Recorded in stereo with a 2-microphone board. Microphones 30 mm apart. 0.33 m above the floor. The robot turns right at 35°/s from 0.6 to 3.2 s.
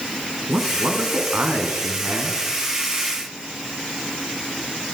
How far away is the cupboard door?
No cupboard door in this recording.